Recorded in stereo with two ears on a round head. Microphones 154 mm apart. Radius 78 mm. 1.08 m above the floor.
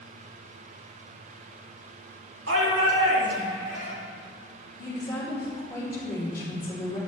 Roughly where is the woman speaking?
Centre.